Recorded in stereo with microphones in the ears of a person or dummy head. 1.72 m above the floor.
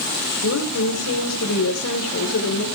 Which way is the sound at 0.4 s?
80° left.